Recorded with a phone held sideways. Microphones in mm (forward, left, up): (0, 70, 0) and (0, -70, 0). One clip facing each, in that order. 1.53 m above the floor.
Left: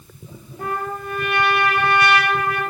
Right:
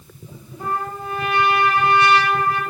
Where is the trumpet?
80° left, 8 m.